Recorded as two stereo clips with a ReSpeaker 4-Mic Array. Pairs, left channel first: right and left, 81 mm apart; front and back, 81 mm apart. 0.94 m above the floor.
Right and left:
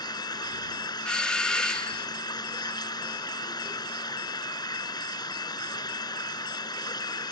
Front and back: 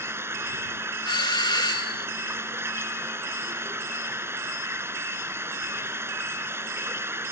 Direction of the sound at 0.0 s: 120° right.